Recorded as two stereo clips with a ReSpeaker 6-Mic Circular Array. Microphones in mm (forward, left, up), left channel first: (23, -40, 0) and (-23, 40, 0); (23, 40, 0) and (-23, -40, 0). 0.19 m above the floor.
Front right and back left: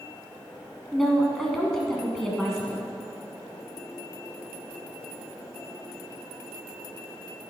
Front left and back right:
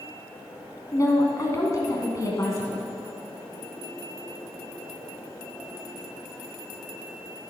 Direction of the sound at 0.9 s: 25° left.